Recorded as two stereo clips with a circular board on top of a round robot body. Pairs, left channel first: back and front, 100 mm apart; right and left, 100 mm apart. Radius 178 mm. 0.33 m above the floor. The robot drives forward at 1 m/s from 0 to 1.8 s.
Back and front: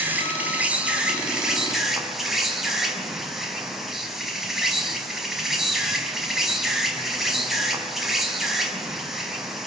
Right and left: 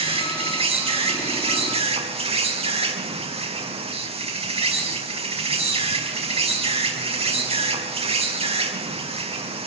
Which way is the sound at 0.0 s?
70° left.